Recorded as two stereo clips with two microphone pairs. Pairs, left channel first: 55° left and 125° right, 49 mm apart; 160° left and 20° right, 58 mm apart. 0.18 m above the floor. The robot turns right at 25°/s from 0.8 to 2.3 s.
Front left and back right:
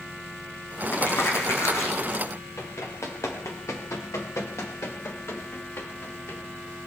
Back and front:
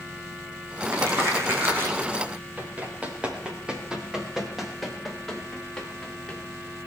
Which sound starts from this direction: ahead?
Crumpling, at 0.9 s.